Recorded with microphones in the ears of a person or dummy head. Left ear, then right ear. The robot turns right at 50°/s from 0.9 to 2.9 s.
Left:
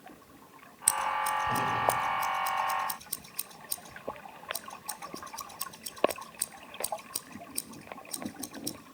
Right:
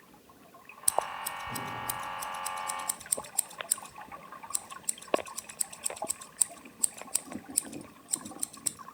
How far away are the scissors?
About 0.9 m.